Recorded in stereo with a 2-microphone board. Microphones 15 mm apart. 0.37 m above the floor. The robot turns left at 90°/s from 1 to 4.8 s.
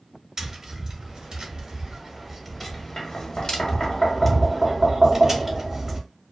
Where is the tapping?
35° right (ahead or behind), 0.8 m; by 6.1 s 20° right (ahead or behind), 0.8 m.